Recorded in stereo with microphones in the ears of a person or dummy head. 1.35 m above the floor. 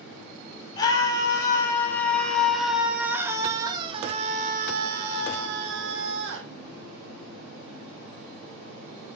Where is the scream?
20° left (ahead or behind), 4 m; by 6.5 s 80° right, 3 m.